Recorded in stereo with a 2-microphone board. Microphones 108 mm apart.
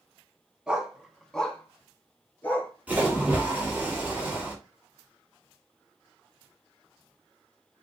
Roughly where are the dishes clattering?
I don't hear dishes clattering.